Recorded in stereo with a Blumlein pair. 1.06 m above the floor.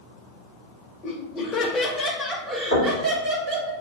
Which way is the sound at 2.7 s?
65° left.